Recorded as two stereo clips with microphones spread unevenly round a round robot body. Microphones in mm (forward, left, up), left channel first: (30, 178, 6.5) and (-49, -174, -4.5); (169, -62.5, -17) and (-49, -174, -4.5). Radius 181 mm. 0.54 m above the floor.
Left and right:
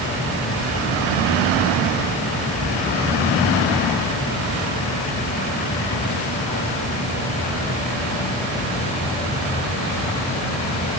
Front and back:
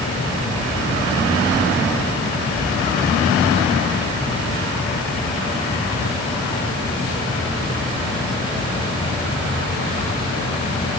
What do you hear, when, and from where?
Only background noise.